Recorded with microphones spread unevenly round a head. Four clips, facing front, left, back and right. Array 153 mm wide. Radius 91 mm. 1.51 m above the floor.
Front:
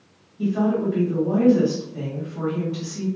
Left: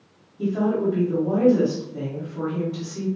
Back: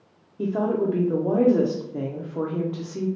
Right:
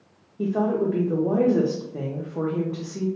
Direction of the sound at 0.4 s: 145° right.